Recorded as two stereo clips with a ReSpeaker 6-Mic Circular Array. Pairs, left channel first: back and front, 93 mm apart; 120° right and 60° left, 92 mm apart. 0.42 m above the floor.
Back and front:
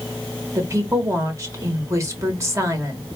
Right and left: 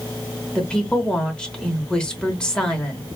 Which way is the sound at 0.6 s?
45° right.